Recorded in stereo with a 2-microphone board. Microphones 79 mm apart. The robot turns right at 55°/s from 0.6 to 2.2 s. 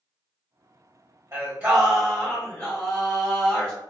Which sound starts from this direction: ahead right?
Singing, at 1.3 s.